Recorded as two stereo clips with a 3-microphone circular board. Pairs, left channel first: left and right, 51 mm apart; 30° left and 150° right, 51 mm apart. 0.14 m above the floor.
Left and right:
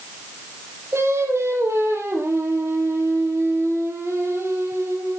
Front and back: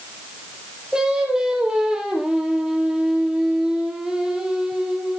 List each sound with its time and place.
0.9 s singing: 75° right, 4.5 m